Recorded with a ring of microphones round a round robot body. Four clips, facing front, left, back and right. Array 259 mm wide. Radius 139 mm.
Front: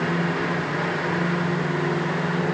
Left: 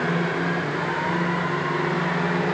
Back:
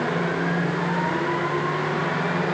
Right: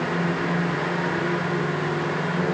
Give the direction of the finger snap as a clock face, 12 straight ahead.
No finger snap in this recording.